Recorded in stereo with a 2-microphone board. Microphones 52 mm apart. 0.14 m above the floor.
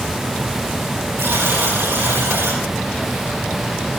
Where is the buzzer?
55° right (ahead or behind), 7 m.